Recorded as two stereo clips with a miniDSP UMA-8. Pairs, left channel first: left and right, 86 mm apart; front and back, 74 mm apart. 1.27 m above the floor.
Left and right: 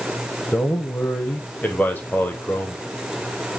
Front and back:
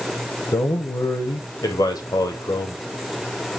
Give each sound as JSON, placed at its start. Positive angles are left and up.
{"t": 0.5, "sound": "a man speaking", "azimuth_deg": 20, "distance_m": 0.9}